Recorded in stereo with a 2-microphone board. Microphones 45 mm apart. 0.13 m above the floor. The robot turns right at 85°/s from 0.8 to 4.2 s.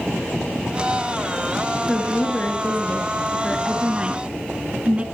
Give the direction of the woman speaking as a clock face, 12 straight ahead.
11 o'clock.